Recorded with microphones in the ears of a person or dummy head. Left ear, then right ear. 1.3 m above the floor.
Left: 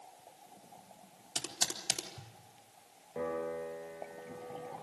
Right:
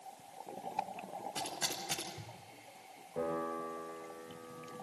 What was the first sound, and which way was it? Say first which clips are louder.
Typing on a keyboard: left 4 dB; 85° left.